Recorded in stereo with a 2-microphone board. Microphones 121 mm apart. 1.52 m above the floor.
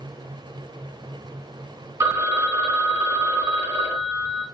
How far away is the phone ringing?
About 1.0 m.